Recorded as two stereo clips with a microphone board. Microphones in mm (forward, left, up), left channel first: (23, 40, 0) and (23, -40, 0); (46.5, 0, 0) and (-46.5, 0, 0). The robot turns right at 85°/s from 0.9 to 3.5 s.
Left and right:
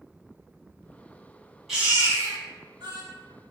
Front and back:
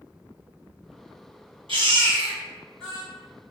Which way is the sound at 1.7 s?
175° right.